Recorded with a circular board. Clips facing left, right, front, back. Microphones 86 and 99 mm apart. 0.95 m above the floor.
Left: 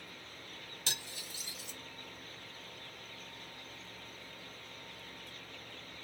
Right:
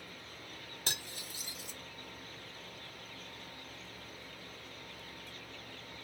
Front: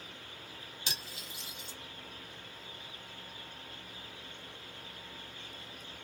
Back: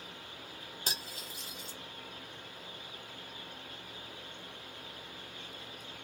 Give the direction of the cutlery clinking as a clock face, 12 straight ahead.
4 o'clock.